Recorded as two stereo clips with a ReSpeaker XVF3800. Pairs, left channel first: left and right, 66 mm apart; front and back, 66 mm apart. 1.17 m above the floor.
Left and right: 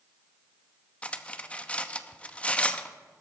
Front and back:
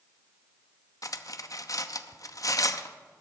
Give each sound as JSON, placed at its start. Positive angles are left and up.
{"t": 1.0, "sound": "cutlery clinking", "azimuth_deg": 20, "distance_m": 0.8}